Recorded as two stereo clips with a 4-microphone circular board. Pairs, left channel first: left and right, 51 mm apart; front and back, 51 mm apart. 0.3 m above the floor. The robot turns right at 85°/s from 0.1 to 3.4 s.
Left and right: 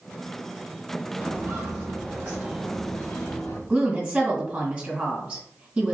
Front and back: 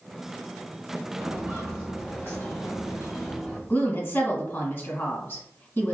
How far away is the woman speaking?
About 1.7 m.